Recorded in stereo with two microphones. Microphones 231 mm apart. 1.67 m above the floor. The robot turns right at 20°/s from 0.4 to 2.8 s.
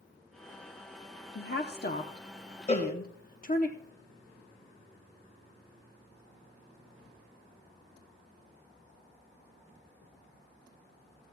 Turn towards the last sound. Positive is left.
turn(degrees=25)  # may be behind; listen again after turning